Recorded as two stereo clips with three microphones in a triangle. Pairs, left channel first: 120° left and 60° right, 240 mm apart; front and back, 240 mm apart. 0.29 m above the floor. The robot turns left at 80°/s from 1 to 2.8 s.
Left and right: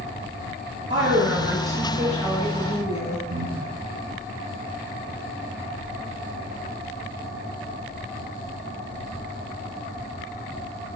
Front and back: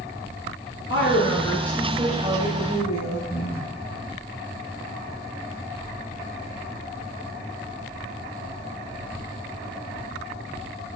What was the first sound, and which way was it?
A woman speaking, 30° right.